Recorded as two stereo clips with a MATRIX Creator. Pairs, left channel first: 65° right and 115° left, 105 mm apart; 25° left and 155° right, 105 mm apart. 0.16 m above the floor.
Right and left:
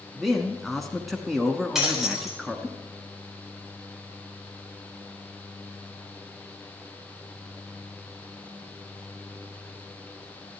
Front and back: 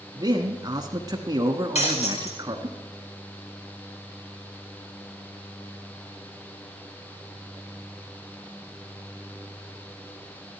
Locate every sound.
0.1 s a man speaking: 155° right, 1.2 m
1.8 s breaking glass: 25° left, 4.5 m